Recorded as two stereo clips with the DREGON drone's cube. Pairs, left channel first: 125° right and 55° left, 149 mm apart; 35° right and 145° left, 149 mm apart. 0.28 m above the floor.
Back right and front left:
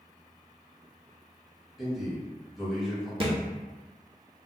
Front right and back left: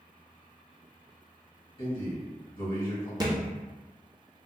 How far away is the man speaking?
About 1.4 m.